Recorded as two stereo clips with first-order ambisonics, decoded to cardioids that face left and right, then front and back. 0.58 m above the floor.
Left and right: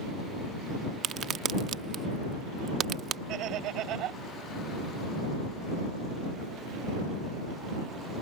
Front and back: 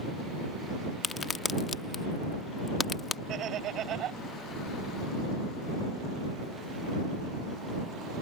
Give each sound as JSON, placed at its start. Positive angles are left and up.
{"t": 1.0, "sound": "a crack", "azimuth_deg": -60}
{"t": 3.3, "sound": "laughter", "azimuth_deg": -130}